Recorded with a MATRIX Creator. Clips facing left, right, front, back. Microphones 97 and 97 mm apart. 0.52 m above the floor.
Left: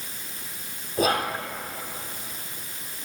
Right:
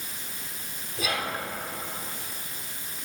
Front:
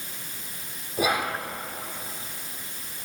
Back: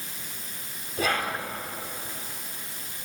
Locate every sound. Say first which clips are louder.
1.0 s whispering: left 7 dB, front 2 dB; 75° left, 1.2 m